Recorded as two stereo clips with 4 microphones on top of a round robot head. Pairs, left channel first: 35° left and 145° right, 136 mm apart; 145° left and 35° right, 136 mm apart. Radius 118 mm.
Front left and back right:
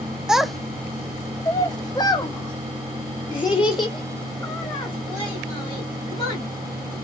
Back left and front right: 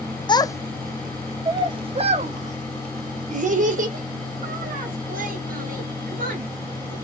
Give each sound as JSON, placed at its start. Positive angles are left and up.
{"t": 0.3, "sound": "a child speaking", "azimuth_deg": 130, "distance_m": 0.7}